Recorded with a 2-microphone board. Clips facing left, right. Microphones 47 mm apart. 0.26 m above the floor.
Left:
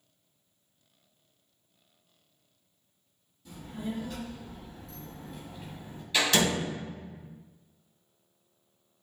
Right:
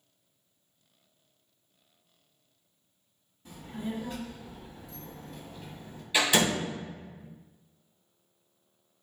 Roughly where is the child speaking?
Right.